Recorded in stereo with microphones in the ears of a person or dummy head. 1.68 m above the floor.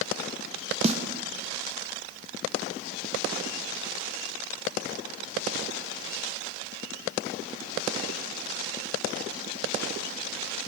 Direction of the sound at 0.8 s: 35° right (ahead or behind).